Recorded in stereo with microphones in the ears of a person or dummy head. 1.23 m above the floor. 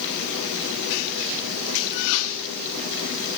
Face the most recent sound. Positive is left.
No sound to turn to.